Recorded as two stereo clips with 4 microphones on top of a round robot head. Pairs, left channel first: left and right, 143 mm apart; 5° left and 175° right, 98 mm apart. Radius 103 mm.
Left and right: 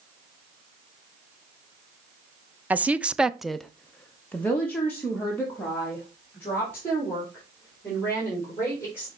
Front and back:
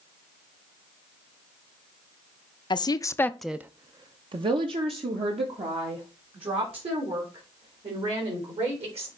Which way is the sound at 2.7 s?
10° right.